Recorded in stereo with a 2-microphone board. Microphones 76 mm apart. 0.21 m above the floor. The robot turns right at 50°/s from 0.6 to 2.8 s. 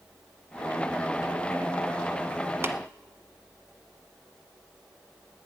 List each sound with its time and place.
2.6 s tapping: 35° right (ahead or behind), 0.9 m; by 2.8 s 40° right (ahead or behind), 0.9 m